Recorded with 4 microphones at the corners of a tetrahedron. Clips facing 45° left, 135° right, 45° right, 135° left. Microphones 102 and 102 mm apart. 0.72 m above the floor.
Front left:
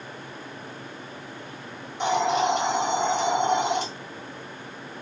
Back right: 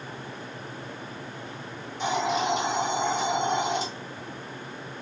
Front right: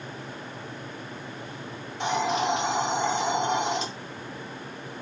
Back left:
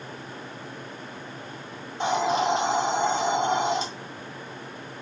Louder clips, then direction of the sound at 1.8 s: Front left 3 dB, back left 2 dB; 75° left.